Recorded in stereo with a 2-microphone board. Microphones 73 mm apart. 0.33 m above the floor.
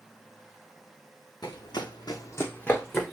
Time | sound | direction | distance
1.4 | running footsteps | 70° left (ahead or behind) | 1.5 m